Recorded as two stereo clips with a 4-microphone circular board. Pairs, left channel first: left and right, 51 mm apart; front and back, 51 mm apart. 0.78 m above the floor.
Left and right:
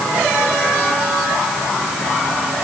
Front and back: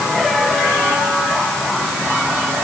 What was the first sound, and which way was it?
Only background noise.